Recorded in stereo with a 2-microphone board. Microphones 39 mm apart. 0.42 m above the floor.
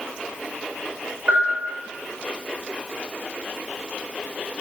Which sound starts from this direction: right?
A bell, at 1.3 s.